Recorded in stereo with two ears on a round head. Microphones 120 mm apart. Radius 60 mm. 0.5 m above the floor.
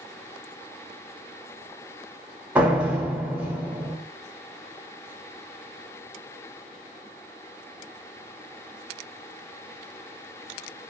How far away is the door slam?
About 0.9 m.